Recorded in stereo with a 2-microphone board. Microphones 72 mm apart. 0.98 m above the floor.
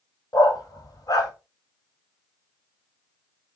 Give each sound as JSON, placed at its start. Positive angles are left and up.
{"t": 0.3, "sound": "a dog barking", "side_deg": 60, "distance_m": 1.5}